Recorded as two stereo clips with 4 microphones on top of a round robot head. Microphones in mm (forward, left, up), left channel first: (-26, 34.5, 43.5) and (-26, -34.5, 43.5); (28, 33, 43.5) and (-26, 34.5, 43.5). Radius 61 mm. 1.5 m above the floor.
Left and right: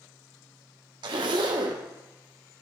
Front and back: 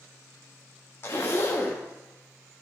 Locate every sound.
1.0 s a zipper: 60° right, 0.5 m